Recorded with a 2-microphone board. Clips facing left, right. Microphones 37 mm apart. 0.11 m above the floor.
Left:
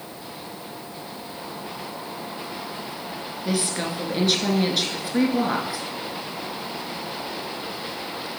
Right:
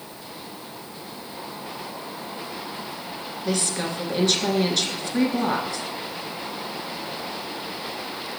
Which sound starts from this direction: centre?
A woman speaking, at 3.5 s.